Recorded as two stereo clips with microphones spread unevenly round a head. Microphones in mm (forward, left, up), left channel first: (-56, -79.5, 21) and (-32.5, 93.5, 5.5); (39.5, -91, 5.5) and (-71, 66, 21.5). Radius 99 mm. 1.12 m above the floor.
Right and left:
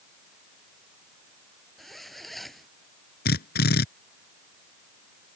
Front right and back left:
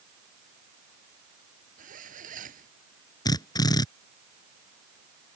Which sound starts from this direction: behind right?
A drill, at 3.2 s.